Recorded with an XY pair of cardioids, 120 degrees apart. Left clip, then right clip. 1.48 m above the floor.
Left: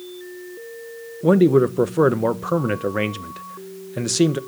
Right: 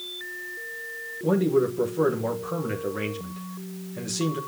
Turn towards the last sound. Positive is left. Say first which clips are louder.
# left 7 dB
turn(degrees=55)